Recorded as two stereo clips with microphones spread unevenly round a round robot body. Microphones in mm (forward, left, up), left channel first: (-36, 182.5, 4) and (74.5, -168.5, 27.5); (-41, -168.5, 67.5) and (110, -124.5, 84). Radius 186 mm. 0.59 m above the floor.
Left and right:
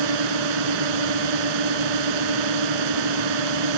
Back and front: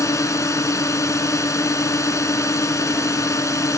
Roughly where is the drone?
Right.